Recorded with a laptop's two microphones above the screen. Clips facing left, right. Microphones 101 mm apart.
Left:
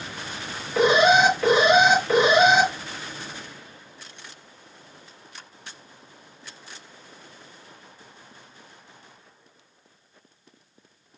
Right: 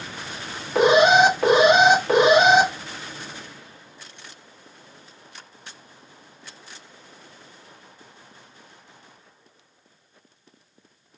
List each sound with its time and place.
0.8 s an alarm: 70° right (ahead or behind), 1.9 m